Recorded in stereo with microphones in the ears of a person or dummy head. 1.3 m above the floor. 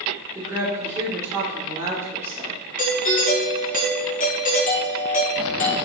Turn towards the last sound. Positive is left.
turn(degrees=35)  # may be behind; listen again after turning